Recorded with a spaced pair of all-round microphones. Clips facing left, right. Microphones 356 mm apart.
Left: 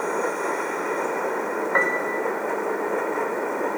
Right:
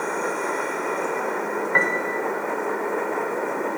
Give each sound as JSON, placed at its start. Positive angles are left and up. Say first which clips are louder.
{"t": 1.7, "sound": "a piano", "louder": "even", "side_deg": -35, "distance_m": 0.9}